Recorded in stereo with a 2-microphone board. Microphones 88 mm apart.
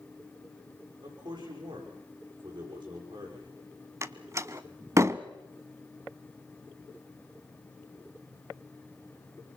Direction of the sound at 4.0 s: 35° right (ahead or behind).